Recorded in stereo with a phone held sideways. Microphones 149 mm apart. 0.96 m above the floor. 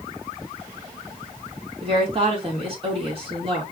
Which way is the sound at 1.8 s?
40° right (ahead or behind).